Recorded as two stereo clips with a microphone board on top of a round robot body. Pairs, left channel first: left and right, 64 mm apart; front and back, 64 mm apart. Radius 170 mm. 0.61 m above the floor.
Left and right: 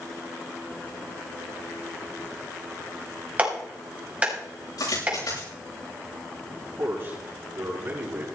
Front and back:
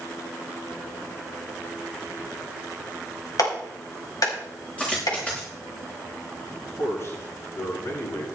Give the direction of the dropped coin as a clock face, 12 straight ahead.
10 o'clock.